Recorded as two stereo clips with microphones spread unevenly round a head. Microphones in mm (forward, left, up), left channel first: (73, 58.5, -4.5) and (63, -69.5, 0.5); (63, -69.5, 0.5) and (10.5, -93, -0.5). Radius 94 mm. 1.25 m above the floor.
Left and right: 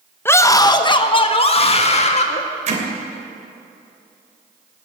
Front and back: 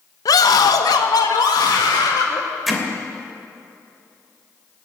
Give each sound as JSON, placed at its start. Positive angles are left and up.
{"t": 0.2, "sound": "a scream", "azimuth_deg": 10, "distance_m": 1.0}
{"t": 2.7, "sound": "hammering", "azimuth_deg": -65, "distance_m": 2.5}